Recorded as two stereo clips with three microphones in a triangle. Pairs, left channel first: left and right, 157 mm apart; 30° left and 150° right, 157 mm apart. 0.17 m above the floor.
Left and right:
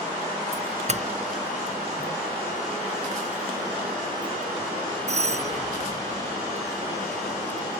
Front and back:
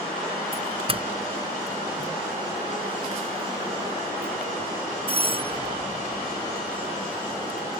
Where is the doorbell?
110° right.